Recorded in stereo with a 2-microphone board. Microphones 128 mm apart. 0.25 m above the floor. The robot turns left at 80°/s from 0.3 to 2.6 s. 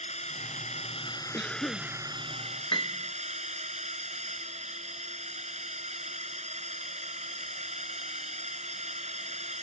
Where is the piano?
35° left (ahead or behind).